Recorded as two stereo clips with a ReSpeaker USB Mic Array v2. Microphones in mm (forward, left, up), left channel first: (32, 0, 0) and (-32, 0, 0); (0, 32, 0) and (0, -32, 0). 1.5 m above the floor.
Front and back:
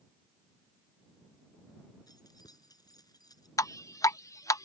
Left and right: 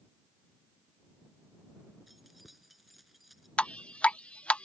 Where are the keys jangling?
Straight ahead.